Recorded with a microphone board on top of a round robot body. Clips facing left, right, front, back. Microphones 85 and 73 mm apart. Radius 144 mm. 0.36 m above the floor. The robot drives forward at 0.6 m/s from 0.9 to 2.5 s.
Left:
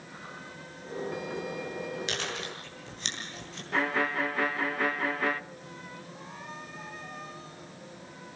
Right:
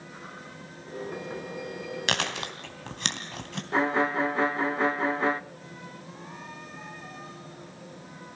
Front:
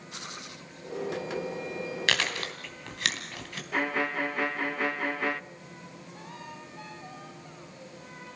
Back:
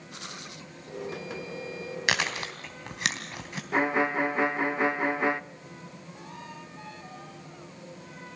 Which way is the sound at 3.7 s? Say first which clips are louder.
Right 4 dB, back 4 dB; 135° right.